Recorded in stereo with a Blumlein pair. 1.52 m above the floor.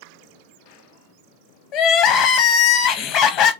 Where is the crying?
35° left, 0.5 m.